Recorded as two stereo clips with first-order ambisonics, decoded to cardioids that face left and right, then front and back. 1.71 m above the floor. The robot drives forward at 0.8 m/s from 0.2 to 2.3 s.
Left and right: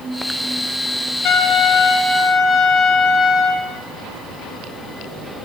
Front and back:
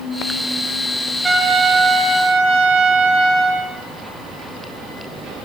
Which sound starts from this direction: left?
A trumpet, at 1.2 s.